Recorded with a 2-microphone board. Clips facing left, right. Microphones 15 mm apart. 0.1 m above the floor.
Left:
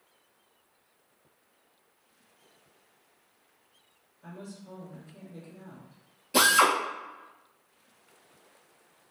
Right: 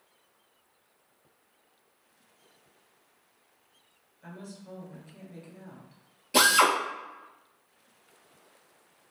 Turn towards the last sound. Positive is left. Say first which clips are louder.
# even
turn(degrees=-15)  # may be behind; listen again after turning